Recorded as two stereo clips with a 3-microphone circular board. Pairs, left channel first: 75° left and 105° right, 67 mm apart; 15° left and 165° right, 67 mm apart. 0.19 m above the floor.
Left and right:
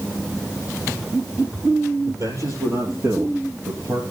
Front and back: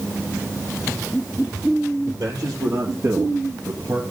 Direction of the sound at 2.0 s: 130° right.